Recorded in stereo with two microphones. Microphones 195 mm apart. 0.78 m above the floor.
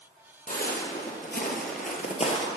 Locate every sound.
0.5 s footsteps: 45° left (ahead or behind), 1.6 m; by 2.5 s 30° left (ahead or behind), 1.1 m